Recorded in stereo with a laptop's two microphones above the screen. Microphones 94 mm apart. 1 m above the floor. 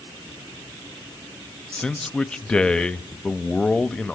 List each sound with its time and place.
1.7 s a man speaking: 10° left (ahead or behind), 0.9 m